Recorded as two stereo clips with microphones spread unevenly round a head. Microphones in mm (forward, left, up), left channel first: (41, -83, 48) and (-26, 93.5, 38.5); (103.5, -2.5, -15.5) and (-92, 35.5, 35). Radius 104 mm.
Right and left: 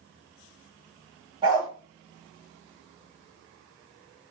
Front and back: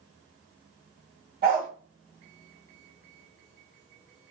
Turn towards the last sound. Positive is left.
turn(degrees=180)